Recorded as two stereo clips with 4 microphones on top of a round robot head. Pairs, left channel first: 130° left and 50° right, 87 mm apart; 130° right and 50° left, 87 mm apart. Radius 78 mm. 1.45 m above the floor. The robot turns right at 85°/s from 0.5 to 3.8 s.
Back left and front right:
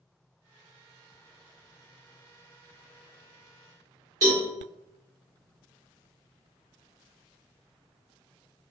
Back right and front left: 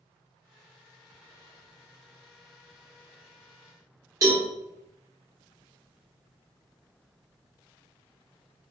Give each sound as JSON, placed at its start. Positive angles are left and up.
{"t": 4.2, "sound": "a cowbell", "azimuth_deg": 0, "distance_m": 1.5}